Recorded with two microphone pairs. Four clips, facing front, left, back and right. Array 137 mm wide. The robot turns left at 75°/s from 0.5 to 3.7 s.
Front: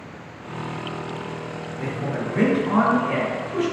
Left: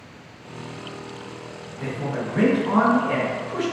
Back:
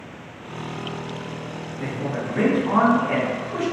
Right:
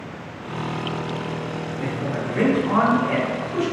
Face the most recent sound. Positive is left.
turn(degrees=170)